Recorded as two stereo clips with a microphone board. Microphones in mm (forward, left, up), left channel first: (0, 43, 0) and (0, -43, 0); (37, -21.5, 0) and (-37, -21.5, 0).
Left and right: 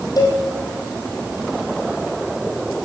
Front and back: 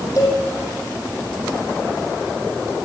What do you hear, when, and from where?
0.2 s a cowbell: 45° left, 5.5 m